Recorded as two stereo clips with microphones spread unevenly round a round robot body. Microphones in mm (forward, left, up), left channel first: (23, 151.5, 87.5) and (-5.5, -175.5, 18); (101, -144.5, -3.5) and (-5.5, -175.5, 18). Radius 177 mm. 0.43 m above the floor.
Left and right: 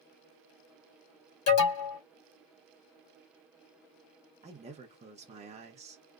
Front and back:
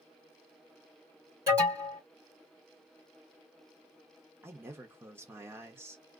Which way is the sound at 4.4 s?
90° right.